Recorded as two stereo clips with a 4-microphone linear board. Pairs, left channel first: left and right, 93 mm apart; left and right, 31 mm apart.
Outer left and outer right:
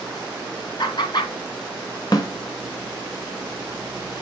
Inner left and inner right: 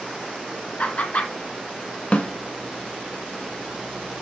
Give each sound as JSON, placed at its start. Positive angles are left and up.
{"t": 0.8, "sound": "laughter", "side_deg": 55, "distance_m": 2.0}
{"t": 2.1, "sound": "a snare drum", "side_deg": 45, "distance_m": 1.2}